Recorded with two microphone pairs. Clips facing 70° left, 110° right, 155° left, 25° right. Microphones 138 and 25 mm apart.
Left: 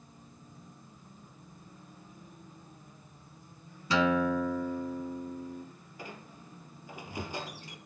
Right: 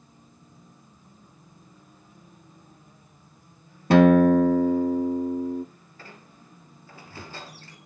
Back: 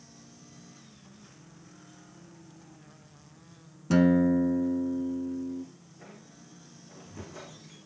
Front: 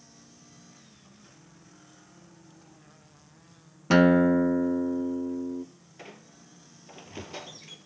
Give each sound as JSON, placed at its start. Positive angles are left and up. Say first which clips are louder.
{"t": 3.9, "sound": "a guitar", "louder": "right 12 dB, front 3 dB", "azimuth_deg": -75, "distance_m": 0.8}
{"t": 6.0, "sound": "a squeak", "louder": "left 3 dB, front 4 dB", "azimuth_deg": -5, "distance_m": 3.0}